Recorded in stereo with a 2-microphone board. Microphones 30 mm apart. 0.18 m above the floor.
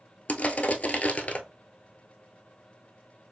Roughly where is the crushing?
Left.